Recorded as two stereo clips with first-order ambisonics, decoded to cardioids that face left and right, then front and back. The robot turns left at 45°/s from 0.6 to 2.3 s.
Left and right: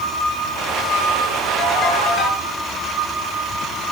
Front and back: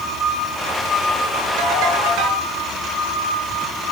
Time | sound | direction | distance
1.6 | a ringtone | 170° left | 9 m